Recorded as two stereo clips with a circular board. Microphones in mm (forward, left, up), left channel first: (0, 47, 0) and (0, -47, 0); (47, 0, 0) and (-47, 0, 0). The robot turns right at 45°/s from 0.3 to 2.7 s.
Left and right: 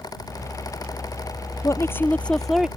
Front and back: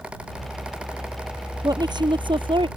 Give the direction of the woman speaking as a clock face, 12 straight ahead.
7 o'clock.